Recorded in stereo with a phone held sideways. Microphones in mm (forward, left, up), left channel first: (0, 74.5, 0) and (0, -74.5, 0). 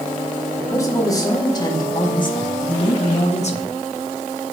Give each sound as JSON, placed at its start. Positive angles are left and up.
{"t": 0.6, "sound": "a man speaking", "side_deg": 20, "distance_m": 3.0}